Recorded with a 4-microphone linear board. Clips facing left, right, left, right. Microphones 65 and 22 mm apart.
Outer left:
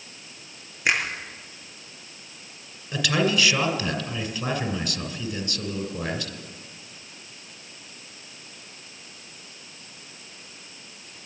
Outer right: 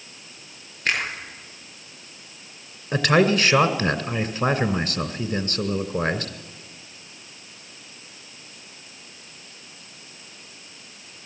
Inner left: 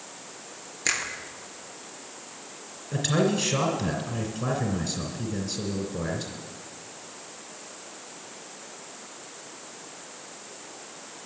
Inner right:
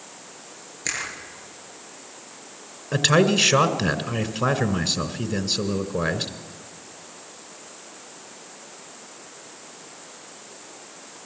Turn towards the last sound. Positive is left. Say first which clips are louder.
# outer right 5 dB, inner right 6 dB
turn(degrees=-45)  # may be behind; listen again after turning